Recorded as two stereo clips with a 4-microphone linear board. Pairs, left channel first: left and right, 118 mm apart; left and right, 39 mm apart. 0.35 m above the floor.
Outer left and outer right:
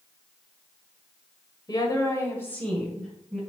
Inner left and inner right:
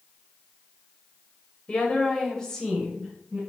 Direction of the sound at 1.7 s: 35° left (ahead or behind).